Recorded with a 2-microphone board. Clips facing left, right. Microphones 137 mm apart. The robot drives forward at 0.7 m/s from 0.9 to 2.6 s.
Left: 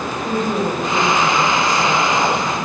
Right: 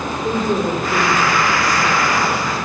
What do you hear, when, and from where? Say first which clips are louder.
0.2 s a woman speaking: right 1 dB; 45° right (ahead or behind), 4.5 m; by 2.5 s 35° right (ahead or behind), 5.5 m